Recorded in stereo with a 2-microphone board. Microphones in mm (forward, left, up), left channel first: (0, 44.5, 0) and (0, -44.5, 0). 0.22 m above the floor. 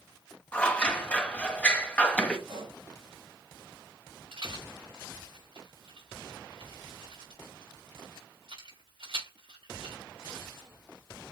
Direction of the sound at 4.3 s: 75° right (ahead or behind).